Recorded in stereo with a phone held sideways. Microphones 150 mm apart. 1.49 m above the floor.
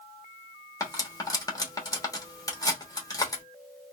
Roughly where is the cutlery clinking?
Left.